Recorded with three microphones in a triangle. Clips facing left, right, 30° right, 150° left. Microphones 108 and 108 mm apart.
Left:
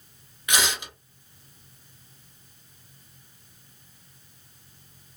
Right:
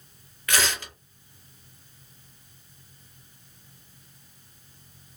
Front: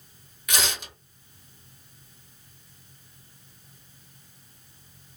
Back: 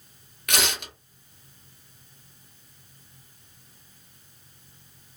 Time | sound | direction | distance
0.5 | tearing paper | 160° left | 0.9 m